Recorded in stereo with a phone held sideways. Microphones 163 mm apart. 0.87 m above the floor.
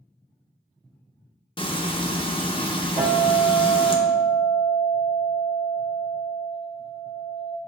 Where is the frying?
35° left (ahead or behind), 0.5 m.